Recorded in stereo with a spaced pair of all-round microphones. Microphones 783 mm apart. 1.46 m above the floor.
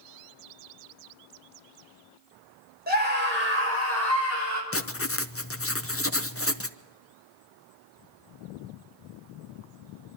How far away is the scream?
About 6.5 m.